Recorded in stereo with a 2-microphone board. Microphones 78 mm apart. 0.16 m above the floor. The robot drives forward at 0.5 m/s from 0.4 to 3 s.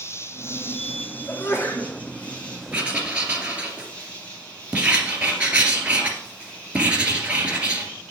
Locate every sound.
0.0 s an insect: 35° left (ahead or behind), 0.9 m; by 8.1 s 15° left (ahead or behind), 2 m
1.3 s a sneeze: 35° left (ahead or behind), 1.7 m
2.7 s writing: 15° right (ahead or behind), 2 m